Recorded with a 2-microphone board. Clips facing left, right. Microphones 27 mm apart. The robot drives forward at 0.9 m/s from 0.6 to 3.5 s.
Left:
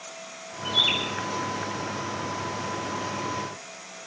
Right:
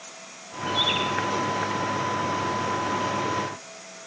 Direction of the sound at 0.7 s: 75° left (ahead or behind).